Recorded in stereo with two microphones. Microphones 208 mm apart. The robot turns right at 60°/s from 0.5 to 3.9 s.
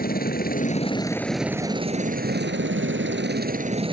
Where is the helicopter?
130° left; by 3.9 s 25° right.